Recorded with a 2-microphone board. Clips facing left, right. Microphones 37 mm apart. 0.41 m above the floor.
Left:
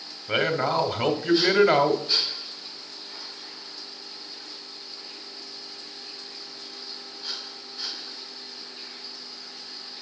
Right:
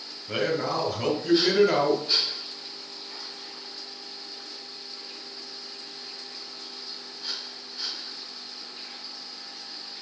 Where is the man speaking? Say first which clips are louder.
Left 3 dB; 40° left (ahead or behind), 1.4 m.